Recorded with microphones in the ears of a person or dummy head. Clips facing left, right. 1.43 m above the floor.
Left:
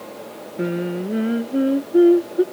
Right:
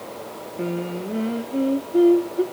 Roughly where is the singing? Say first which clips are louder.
Left 4 dB; centre.